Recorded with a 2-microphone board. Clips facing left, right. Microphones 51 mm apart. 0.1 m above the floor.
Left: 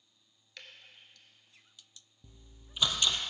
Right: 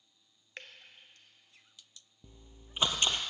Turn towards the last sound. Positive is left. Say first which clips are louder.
# right 4 dB
turn(degrees=-35)  # may be behind; listen again after turning